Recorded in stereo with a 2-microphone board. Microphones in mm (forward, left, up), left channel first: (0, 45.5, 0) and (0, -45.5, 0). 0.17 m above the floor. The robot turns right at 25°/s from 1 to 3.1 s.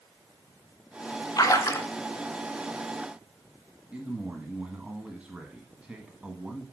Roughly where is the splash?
Left.